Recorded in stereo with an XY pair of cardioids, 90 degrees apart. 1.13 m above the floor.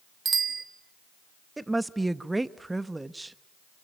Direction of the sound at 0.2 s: 40° right.